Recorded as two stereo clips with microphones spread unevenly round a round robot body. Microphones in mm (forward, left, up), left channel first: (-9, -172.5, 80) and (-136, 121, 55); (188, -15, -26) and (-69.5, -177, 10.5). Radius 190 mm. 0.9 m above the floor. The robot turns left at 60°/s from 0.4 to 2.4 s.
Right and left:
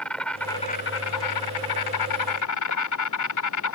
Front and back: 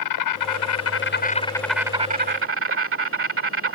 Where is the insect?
20° left; by 3.8 s 100° right.